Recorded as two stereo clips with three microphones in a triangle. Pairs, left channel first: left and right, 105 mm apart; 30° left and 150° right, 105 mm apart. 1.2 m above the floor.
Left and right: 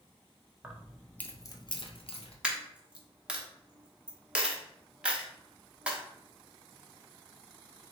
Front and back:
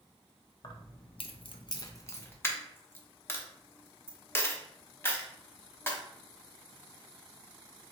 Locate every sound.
0.6 s keys jangling: 15° right, 0.7 m; by 2.3 s 95° left, 0.7 m
2.4 s a dropped coin: 20° right, 0.8 m